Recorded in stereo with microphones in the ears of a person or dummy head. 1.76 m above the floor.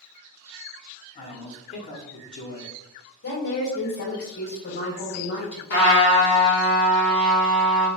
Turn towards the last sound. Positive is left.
turn(degrees=60)  # may be behind; listen again after turning